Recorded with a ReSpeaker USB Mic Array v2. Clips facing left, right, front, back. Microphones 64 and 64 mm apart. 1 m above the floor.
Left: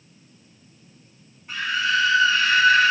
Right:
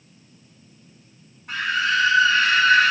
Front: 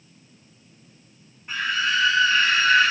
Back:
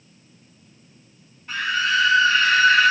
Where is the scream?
75° right, 2.5 m.